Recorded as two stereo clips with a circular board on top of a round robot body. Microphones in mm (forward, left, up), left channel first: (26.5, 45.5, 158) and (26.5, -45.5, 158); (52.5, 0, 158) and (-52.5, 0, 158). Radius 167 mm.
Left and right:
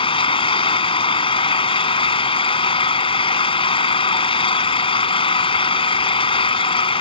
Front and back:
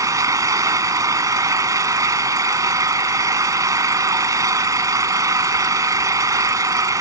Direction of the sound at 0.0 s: 120° left.